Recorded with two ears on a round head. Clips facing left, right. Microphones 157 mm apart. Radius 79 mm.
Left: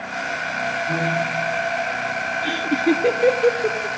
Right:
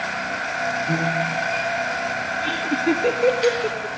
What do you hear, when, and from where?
0.9 s a piano: 30° right (ahead or behind), 8 m
2.4 s laughter: 10° left (ahead or behind), 0.8 m